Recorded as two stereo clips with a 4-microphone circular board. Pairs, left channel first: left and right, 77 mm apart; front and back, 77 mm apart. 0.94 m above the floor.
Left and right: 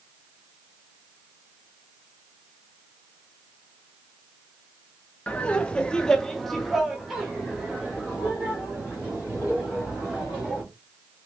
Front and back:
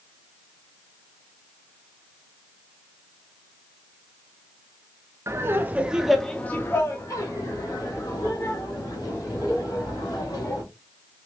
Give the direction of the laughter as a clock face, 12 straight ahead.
7 o'clock.